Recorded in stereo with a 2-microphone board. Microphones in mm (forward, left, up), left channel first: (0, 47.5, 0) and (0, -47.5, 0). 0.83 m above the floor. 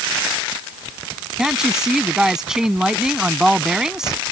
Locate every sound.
1.4 s a woman speaking: 5° right (ahead or behind)